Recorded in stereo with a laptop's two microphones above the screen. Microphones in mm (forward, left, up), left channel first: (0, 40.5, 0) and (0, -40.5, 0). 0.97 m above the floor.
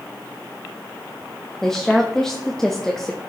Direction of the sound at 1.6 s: 5° left (ahead or behind).